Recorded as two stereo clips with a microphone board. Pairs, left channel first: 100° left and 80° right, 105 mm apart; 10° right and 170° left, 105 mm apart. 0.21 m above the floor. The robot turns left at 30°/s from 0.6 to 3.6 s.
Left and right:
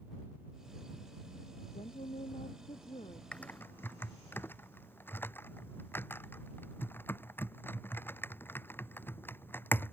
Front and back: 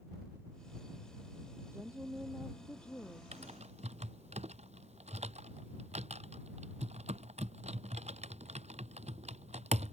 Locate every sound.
1.7 s a woman speaking: 105° left; by 3.2 s 60° left
3.3 s typing on a keyboard: straight behind; by 9.9 s 170° left